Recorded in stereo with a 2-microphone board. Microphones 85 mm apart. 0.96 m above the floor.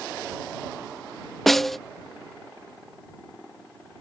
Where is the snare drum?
Centre (ahead or behind).